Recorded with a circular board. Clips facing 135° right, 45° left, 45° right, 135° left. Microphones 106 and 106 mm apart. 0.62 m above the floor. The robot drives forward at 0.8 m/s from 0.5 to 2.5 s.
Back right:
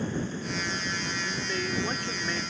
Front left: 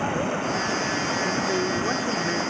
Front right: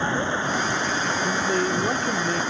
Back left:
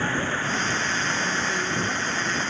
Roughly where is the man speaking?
Ahead.